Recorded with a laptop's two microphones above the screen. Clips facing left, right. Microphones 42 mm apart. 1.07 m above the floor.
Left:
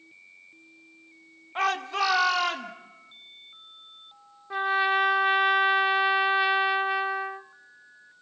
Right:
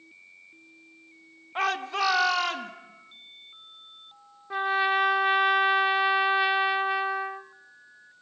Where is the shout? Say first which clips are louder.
Left 1 dB; 5° right (ahead or behind), 1.0 m; by 2.7 s centre (ahead or behind), 1.7 m.